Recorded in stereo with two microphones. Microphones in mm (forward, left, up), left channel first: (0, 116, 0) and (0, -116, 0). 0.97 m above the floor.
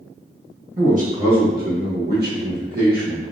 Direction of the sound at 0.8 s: 35° right (ahead or behind).